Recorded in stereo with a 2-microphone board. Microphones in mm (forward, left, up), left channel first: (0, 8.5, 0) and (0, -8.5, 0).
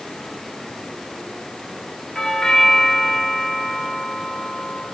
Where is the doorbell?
35° left (ahead or behind), 2.5 m.